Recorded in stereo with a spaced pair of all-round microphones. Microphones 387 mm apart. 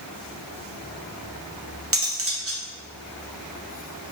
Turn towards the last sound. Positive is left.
turn(degrees=-35)  # may be behind; listen again after turning